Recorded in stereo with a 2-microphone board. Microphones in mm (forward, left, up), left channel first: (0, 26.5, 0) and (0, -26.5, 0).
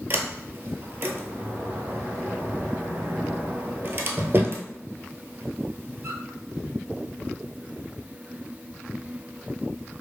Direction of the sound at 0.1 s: 35° right (ahead or behind).